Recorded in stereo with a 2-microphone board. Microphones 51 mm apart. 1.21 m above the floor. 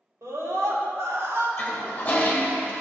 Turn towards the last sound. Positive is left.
turn(degrees=30)  # may be behind; listen again after turning